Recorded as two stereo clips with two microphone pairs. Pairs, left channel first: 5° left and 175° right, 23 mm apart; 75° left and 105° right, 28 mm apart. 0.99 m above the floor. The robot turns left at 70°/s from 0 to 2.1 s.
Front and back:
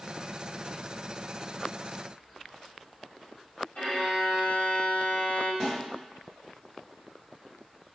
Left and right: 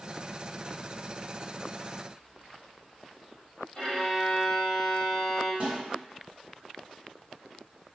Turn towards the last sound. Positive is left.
turn(degrees=-65)